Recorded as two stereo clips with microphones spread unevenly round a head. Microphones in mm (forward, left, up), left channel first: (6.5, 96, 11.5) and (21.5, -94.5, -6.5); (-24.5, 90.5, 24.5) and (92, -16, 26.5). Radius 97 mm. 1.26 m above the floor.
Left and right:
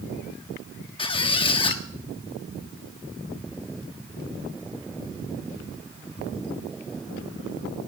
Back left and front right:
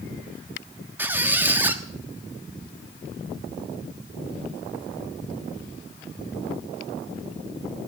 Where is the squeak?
35° left, 1.2 m.